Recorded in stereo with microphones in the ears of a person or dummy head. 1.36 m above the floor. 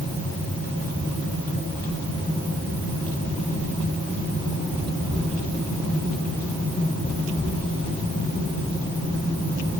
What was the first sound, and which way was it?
Only background noise.